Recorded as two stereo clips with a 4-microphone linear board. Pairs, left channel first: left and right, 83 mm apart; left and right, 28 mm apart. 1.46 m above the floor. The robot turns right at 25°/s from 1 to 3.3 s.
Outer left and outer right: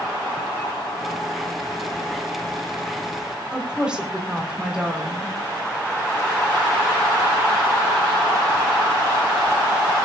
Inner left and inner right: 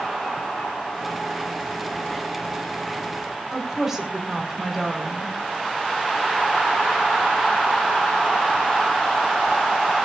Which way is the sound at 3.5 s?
10° right (ahead or behind).